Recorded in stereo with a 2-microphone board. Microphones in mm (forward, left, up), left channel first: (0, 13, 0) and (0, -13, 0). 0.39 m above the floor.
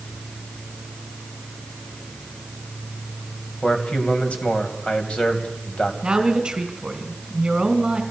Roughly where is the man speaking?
Left.